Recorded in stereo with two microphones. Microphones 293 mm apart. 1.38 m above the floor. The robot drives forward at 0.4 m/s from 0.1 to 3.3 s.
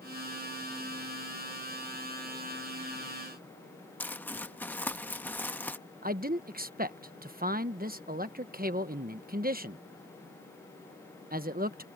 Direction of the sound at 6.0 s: 30° right (ahead or behind).